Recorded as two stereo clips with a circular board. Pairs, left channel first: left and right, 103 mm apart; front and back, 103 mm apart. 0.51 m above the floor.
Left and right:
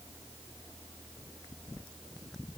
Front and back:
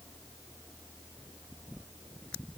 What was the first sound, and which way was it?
Only background noise.